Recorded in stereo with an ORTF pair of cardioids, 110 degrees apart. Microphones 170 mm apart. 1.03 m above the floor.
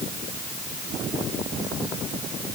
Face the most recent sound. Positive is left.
No sound to turn to.